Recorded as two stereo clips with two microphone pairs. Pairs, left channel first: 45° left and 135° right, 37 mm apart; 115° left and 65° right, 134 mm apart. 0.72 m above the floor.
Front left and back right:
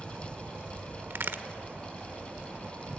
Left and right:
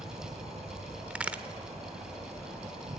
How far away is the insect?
About 3.5 m.